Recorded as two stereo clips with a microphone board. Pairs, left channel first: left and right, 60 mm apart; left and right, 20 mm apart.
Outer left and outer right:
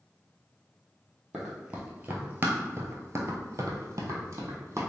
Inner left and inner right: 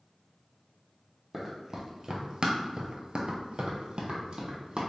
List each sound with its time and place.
1.3 s running footsteps: 5° right (ahead or behind), 1.1 m; by 4.8 s 45° right (ahead or behind), 1.5 m